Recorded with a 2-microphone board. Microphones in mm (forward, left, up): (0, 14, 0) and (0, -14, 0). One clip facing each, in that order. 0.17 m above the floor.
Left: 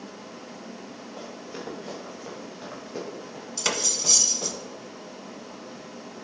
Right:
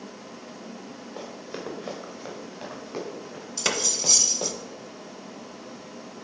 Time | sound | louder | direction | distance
1.2 | running footsteps | right 2 dB | 40° right (ahead or behind) | 4.5 m
3.6 | cutlery clinking | right 1 dB | centre (ahead or behind) | 0.9 m